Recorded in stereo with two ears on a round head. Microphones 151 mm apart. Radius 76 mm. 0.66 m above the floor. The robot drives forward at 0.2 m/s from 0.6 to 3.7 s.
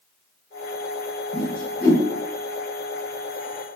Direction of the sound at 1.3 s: 30° left (ahead or behind).